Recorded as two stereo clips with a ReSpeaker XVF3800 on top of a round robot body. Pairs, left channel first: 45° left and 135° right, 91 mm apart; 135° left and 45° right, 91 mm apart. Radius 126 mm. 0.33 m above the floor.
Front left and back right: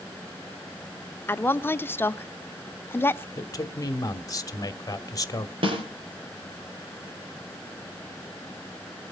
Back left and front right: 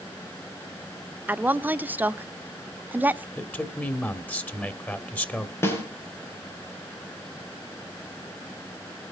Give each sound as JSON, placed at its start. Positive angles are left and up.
{"t": 1.3, "sound": "a woman speaking", "azimuth_deg": 5, "distance_m": 0.9}
{"t": 3.4, "sound": "a man speaking", "azimuth_deg": 70, "distance_m": 1.7}
{"t": 5.6, "sound": "a snare drum", "azimuth_deg": -160, "distance_m": 6.5}